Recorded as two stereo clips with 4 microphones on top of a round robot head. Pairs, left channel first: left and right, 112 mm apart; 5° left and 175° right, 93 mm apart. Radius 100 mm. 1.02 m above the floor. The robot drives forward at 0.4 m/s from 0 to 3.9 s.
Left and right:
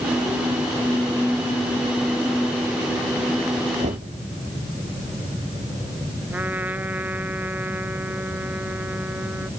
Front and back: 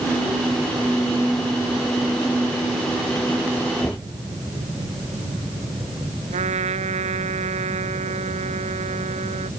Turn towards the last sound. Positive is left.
turn(degrees=-170)